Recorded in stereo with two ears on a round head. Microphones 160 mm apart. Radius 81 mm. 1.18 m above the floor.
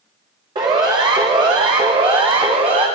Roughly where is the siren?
Right.